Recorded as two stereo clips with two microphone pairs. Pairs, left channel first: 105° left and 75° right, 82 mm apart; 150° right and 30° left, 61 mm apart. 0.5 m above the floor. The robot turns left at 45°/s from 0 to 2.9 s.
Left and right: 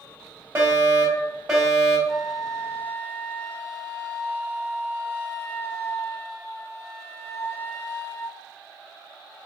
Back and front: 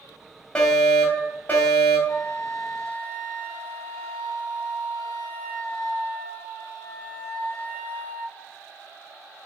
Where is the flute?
165° right, 0.8 m; by 8.4 s 160° left, 0.8 m.